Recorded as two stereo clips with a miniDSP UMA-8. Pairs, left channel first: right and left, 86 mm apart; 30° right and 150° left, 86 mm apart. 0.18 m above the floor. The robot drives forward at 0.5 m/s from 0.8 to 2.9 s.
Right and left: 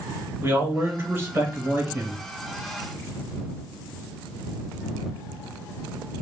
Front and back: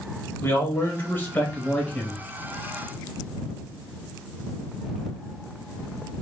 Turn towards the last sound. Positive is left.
turn(degrees=60)